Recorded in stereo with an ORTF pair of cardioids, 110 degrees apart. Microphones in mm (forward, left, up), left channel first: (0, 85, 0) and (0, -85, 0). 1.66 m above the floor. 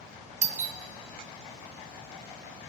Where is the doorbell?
40° right, 0.8 m.